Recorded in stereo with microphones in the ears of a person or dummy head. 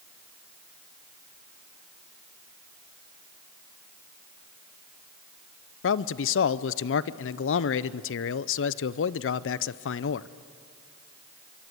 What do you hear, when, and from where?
5.8 s a man speaking: 55° left (ahead or behind), 0.6 m